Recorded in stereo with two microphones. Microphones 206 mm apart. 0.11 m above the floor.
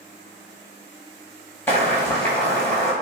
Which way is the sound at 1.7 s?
10° left (ahead or behind).